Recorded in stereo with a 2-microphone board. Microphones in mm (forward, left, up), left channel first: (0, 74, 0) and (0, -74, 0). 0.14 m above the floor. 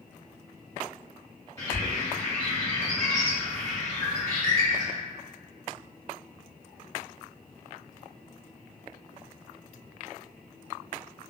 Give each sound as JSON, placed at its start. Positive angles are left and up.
{"t": 1.6, "sound": "a bird", "side_deg": 20, "distance_m": 1.4}